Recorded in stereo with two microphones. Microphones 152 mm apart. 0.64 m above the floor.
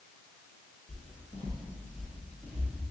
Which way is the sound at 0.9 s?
50° left (ahead or behind).